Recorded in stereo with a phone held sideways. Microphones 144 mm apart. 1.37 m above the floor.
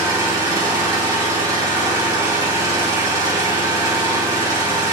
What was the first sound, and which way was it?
An engine running, 25° right (ahead or behind).